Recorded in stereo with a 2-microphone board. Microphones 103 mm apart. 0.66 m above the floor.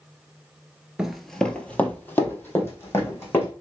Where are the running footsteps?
10° right (ahead or behind), 0.6 m; by 3.5 s 25° left (ahead or behind), 2.5 m.